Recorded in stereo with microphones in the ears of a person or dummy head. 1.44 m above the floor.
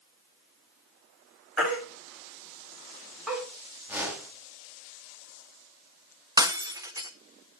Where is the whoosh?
10° right (ahead or behind), 4.5 m.